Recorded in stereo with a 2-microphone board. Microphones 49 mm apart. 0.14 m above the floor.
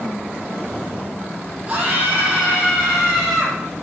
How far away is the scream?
About 6 m.